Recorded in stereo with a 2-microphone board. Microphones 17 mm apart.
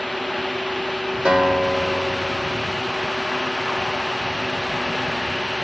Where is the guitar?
80° right, 1.5 m.